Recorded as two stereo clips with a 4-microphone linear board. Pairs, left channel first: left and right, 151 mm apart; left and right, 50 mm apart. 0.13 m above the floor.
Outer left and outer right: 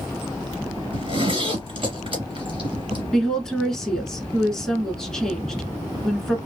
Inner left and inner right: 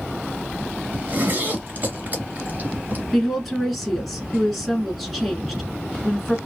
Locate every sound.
0.9 s a zipper: 35° right (ahead or behind), 2 m
3.1 s a woman speaking: 5° left (ahead or behind), 1.2 m